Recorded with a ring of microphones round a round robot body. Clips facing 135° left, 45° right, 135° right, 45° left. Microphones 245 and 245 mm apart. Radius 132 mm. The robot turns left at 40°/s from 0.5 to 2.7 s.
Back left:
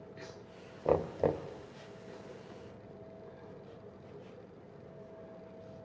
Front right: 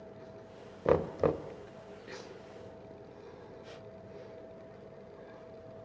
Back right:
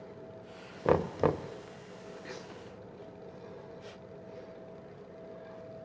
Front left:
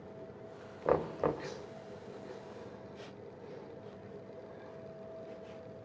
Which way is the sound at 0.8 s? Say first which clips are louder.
Front right 2 dB, back right 4 dB; 105° right.